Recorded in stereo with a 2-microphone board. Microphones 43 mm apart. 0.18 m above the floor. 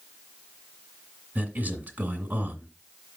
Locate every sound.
1.4 s a man speaking: 40° right (ahead or behind), 1.8 m